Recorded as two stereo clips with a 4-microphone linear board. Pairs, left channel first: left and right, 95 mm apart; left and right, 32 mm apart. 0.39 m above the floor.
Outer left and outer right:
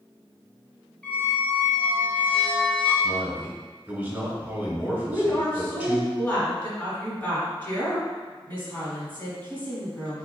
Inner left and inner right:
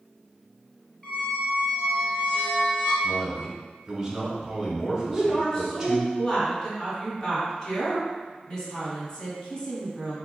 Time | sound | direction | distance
1.0 | a squeak | 15° left (ahead or behind) | 1.3 m
3.0 | a man speaking | 20° right (ahead or behind) | 1.3 m
5.1 | a woman speaking | 20° left (ahead or behind) | 1.7 m